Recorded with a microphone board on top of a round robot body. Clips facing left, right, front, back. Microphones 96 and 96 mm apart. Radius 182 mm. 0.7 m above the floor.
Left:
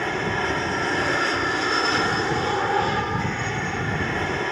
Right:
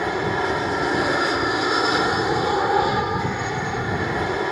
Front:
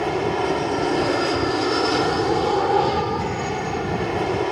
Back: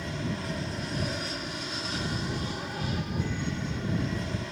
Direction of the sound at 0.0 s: 15° right.